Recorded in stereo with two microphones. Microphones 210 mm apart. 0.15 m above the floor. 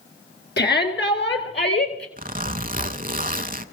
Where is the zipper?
45° right (ahead or behind), 0.6 m.